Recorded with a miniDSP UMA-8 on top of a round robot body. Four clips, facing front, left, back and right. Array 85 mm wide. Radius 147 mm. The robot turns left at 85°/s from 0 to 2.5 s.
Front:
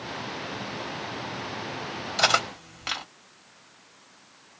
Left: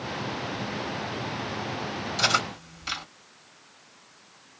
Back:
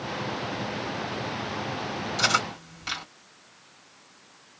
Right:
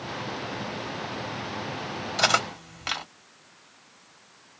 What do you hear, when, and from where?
2.2 s cutlery clinking: 30° right, 1.8 m; by 3.0 s 55° right, 1.8 m